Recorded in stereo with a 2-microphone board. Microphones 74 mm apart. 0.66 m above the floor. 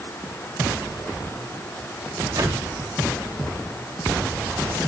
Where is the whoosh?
65° right (ahead or behind), 3 m.